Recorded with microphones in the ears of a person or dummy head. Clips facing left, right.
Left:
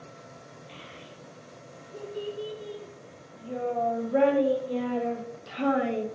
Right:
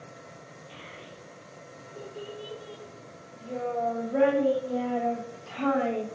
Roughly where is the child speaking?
Left.